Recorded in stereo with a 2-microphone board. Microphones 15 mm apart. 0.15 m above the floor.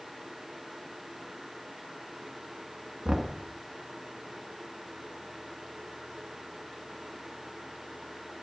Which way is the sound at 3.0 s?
30° right (ahead or behind).